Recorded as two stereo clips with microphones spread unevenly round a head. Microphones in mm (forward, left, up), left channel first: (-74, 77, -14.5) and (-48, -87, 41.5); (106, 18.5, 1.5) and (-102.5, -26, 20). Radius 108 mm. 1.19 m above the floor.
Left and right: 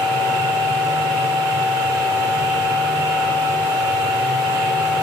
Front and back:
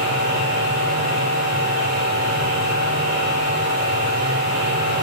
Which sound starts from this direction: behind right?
A machine running, at 0.0 s.